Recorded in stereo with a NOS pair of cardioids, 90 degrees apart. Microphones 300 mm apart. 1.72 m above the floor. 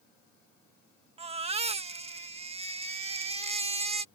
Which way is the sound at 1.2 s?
20° right.